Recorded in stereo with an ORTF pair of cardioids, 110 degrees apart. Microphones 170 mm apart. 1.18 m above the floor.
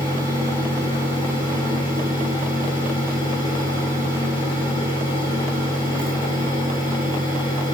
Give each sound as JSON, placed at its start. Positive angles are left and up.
{"t": 0.0, "sound": "a fan", "azimuth_deg": 25, "distance_m": 2.5}